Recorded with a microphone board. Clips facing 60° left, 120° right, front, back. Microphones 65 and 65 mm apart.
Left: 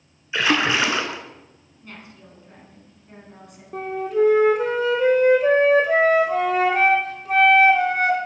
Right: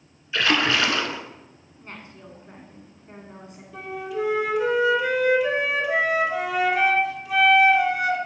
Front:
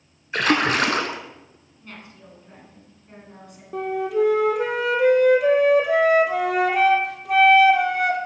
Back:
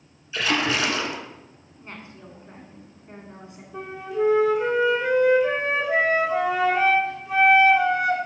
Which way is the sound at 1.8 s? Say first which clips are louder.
Right 1 dB, back 2 dB; 145° right.